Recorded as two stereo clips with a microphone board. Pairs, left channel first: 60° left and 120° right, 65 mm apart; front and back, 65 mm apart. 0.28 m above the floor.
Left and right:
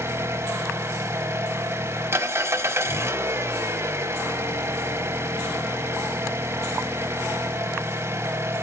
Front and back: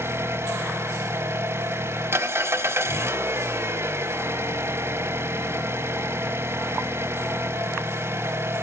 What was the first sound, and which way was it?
An engine running, 150° right.